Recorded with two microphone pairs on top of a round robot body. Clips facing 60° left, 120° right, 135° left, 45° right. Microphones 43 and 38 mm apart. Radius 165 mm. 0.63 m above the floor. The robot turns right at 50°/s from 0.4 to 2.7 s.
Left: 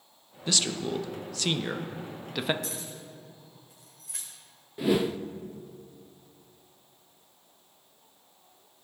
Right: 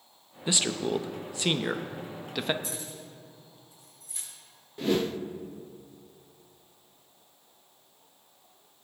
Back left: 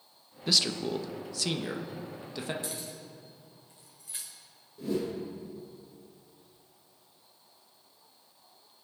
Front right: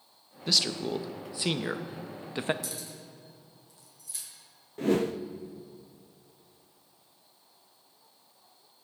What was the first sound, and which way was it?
A man speaking, 145° right.